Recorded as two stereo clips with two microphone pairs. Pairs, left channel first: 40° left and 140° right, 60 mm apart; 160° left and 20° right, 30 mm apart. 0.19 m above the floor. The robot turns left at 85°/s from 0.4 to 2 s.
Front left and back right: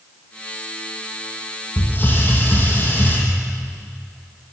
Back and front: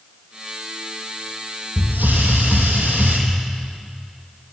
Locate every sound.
1.8 s a hiss: straight ahead, 4.5 m; by 3.2 s 20° right, 4.5 m